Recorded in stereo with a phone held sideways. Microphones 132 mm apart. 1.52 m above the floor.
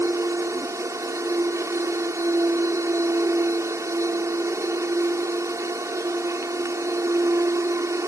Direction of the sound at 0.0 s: 25° right (ahead or behind).